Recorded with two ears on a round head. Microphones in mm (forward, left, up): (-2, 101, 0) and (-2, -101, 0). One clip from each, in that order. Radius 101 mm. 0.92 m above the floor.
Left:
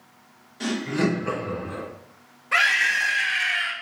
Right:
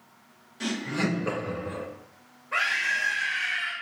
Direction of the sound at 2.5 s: 75° left (ahead or behind).